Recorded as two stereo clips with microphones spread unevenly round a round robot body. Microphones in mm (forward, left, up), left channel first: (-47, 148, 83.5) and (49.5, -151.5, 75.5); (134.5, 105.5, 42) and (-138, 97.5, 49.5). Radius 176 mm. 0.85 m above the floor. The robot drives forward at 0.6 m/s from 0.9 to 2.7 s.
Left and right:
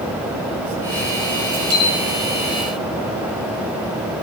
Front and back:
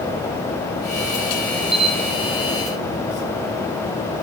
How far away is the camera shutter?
About 3 m.